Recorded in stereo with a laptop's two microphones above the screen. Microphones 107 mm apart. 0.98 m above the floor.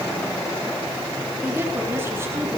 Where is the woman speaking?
20° right (ahead or behind), 7 m; by 2.6 s 25° right (ahead or behind), 8 m.